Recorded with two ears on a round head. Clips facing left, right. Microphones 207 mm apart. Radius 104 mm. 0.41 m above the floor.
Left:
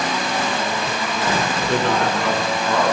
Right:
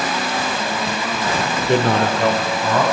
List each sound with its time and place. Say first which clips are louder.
1.7 s a man speaking: right 4 dB; 15° right (ahead or behind), 0.8 m; by 2.8 s 55° right (ahead or behind), 2 m